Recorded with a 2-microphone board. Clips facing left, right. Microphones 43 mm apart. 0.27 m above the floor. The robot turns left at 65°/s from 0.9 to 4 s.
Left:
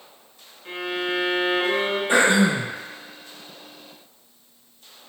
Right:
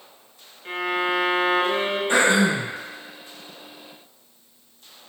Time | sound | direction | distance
0.7 | a violin | 140° right | 1.2 m
2.1 | throat clearing | 165° left | 1.5 m